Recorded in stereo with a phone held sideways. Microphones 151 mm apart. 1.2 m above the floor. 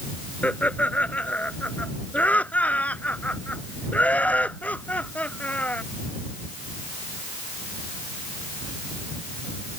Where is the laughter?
10° left (ahead or behind).